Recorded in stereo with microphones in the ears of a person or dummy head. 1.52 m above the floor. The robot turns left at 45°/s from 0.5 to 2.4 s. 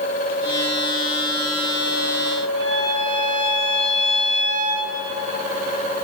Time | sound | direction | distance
2.6 | a violin | 40° left (ahead or behind) | 4.5 m